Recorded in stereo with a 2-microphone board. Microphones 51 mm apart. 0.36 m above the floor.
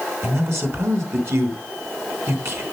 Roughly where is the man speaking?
Right.